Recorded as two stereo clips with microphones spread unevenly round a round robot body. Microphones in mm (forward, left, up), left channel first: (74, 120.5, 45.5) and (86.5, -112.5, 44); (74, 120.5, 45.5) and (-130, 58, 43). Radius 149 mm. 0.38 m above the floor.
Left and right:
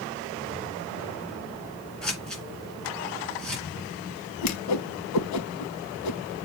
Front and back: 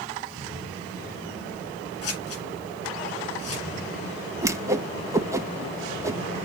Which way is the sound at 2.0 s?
5° left.